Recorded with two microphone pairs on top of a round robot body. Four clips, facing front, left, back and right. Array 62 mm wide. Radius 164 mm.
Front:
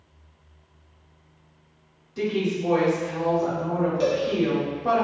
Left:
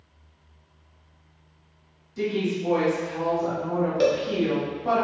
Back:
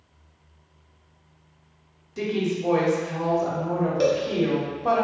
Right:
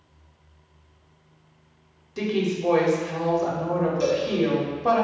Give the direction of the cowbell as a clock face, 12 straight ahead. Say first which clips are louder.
Left 5 dB, back 3 dB; 8 o'clock.